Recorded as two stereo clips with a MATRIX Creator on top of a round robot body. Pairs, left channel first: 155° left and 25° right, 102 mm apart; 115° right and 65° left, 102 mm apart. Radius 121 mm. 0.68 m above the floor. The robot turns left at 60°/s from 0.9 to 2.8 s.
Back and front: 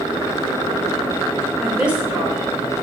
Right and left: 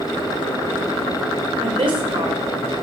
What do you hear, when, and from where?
1.6 s a woman speaking: 70° left, 1.5 m; by 2.4 s 20° left, 1.5 m